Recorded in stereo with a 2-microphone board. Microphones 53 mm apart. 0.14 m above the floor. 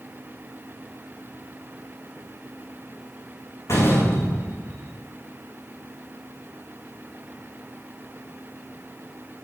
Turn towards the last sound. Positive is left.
turn(degrees=70)  # may be behind; listen again after turning